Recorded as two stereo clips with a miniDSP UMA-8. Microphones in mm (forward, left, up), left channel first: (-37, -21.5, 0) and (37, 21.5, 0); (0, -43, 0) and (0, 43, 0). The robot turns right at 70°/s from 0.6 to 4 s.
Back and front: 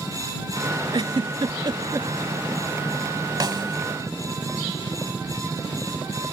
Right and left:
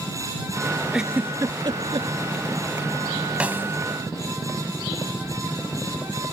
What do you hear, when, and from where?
0.9 s a giggle: 5° left; by 2.1 s 85° left
3.4 s a snare drum: 20° left; by 3.8 s 45° left